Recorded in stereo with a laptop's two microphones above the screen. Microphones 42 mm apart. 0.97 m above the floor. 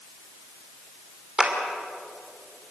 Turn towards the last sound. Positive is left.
turn(degrees=-25)  # may be behind; listen again after turning